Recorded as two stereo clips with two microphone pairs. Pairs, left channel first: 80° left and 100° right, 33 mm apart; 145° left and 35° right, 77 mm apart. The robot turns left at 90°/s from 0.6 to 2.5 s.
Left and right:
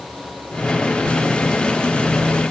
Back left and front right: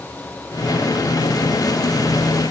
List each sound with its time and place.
Only background noise.